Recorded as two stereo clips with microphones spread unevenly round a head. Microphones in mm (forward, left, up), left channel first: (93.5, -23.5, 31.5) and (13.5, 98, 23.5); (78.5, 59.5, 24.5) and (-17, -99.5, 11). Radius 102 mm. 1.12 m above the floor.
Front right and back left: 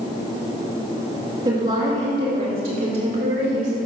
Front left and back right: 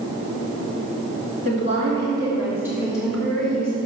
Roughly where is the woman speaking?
Behind.